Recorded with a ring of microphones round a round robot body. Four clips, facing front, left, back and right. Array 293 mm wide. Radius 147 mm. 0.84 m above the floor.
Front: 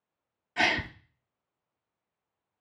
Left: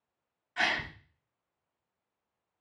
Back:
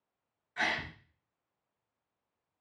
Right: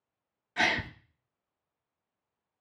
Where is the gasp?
40° right, 0.7 m.